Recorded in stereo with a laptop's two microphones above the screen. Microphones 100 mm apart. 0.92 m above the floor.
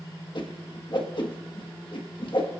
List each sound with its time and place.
0.3 s a whoosh: 50° left (ahead or behind), 1.5 m